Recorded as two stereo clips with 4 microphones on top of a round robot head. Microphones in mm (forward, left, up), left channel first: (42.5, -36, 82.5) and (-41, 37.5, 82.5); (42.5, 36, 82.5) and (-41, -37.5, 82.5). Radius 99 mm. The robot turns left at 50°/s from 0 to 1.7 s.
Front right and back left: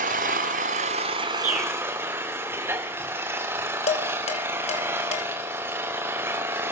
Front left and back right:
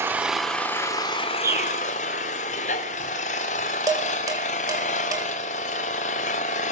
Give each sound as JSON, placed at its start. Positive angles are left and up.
{"t": 0.0, "sound": "an engine running", "azimuth_deg": 150, "distance_m": 1.3}
{"t": 1.4, "sound": "a bird", "azimuth_deg": 155, "distance_m": 2.5}
{"t": 3.9, "sound": "dishes clattering", "azimuth_deg": -75, "distance_m": 3.5}